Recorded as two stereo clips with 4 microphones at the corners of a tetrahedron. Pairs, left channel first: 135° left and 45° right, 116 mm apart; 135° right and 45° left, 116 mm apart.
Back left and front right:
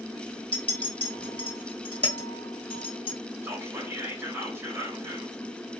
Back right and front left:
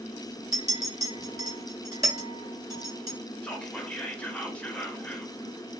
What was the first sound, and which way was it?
A clink, 100° left.